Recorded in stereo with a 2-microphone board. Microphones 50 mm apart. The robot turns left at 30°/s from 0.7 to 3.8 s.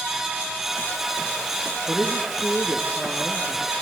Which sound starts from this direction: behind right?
A man speaking, at 1.9 s.